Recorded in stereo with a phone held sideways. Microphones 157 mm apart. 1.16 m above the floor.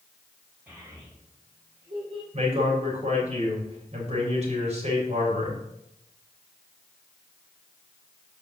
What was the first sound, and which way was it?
A child speaking, 10° right (ahead or behind).